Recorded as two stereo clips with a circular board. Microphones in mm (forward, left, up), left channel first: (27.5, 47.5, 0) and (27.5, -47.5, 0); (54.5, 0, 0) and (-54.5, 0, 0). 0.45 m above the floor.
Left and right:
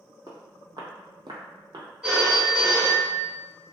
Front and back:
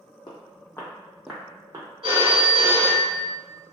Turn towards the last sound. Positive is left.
turn(degrees=-170)